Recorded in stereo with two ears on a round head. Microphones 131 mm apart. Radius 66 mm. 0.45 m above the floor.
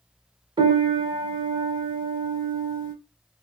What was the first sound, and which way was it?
A piano, 30° right (ahead or behind).